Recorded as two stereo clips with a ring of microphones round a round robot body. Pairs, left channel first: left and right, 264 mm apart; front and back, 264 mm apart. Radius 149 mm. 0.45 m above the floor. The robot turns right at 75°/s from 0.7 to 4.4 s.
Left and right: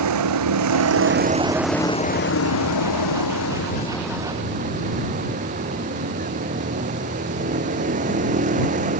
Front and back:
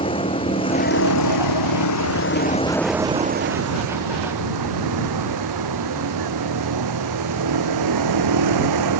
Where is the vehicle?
75° right; by 9.0 s 155° right.